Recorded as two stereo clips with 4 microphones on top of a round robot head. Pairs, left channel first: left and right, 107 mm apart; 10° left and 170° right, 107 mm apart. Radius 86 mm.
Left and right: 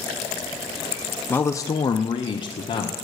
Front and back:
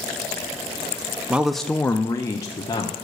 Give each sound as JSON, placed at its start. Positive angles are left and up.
{"t": 1.3, "sound": "a man speaking", "azimuth_deg": 130, "distance_m": 0.5}